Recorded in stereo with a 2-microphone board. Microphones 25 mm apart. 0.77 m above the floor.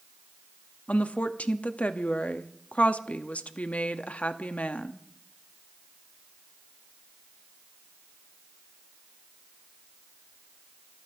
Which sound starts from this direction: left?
A woman speaking, at 0.9 s.